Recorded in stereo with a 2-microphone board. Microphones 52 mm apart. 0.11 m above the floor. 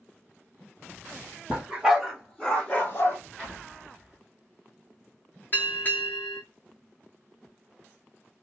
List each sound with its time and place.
1.5 s a dog barking: 20° right (ahead or behind), 1.2 m; by 3.2 s 40° left (ahead or behind), 1.2 m
3.4 s an explosion: 5° left (ahead or behind), 1.7 m
5.5 s a bell: 40° left (ahead or behind), 0.9 m